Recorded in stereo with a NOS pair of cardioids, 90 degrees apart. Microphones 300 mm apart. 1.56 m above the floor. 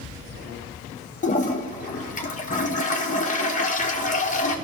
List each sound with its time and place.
1.2 s a toilet flushing: 25° left, 1.5 m